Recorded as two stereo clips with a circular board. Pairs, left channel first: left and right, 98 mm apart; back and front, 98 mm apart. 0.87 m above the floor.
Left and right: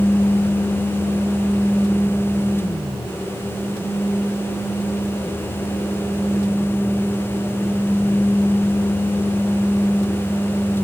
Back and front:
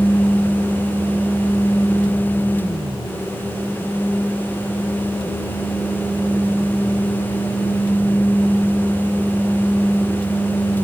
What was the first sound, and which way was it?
Only background noise.